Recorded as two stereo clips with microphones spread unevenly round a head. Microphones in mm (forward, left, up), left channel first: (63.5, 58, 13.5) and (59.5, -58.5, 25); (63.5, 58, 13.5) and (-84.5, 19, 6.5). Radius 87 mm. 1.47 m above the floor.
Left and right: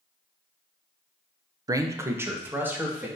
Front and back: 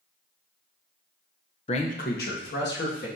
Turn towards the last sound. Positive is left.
turn(degrees=-20)